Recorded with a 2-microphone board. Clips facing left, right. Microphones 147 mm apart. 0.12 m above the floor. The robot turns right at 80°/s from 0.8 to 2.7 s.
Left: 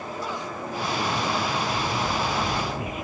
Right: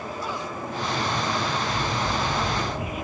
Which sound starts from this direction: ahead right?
Scissors, at 1.7 s.